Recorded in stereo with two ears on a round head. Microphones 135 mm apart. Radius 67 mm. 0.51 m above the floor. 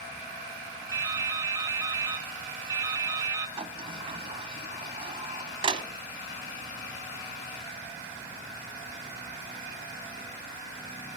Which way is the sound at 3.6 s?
35° right (ahead or behind).